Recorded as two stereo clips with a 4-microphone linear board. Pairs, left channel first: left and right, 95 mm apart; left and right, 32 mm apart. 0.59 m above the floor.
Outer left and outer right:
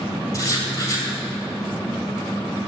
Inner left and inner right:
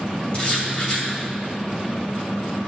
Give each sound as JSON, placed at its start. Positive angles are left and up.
{"t": 0.3, "sound": "writing", "side_deg": 35, "distance_m": 2.5}